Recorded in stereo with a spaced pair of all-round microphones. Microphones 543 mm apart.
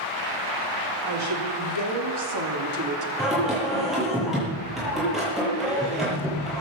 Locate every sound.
1.1 s a woman speaking: 55° right (ahead or behind), 4 m; by 3.1 s 30° right (ahead or behind), 3 m
3.2 s singing: centre (ahead or behind), 8.5 m